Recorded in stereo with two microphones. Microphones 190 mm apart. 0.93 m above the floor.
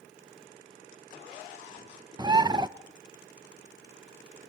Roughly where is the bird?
Centre.